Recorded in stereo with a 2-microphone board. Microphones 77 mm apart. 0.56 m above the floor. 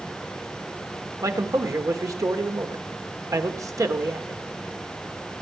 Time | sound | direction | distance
1.2 | a man speaking | 45° right (ahead or behind) | 1.8 m